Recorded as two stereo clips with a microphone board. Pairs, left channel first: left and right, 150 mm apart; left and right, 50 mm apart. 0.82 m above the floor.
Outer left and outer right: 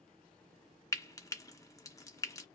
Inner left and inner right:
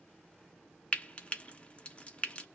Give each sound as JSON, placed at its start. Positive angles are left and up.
{"t": 0.9, "sound": "frying", "side_deg": 20, "distance_m": 0.5}